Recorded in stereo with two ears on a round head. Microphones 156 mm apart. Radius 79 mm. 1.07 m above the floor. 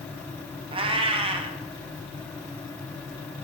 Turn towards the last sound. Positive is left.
turn(degrees=-30)  # may be behind; listen again after turning